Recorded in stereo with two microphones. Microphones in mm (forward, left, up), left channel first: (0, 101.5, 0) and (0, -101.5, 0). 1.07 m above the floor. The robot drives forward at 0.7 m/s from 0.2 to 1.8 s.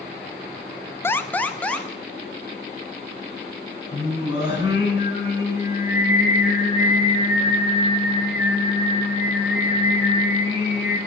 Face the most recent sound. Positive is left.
turn(degrees=80)